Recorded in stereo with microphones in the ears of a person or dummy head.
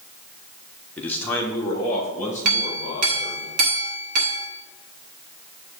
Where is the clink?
60° right (ahead or behind), 1.5 m.